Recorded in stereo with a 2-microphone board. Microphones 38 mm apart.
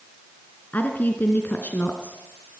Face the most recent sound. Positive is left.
turn(degrees=50)  # may be behind; listen again after turning